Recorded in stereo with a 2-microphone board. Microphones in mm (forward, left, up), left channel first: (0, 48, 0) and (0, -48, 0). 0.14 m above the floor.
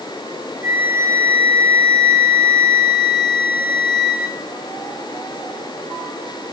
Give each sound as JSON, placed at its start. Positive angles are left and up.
{"t": 0.6, "sound": "a flute", "side_deg": -25, "distance_m": 1.4}